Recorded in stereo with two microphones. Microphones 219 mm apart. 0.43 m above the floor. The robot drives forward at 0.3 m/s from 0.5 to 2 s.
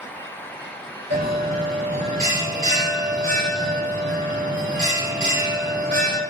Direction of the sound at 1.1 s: 40° right (ahead or behind).